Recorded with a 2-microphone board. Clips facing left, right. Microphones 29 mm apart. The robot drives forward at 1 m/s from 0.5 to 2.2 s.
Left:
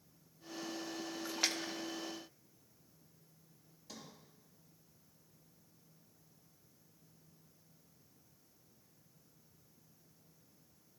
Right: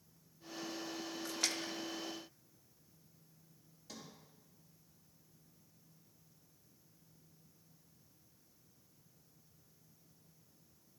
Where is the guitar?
I don't hear a guitar.